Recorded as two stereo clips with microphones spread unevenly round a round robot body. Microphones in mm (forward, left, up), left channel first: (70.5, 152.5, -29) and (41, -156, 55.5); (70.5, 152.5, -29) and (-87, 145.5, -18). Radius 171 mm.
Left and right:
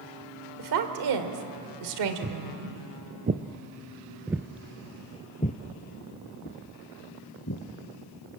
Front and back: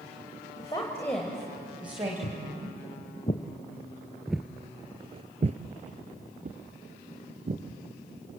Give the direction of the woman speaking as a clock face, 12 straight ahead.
2 o'clock.